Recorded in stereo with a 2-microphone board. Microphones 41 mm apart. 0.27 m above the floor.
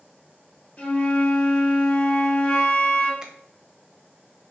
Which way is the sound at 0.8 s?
40° left (ahead or behind).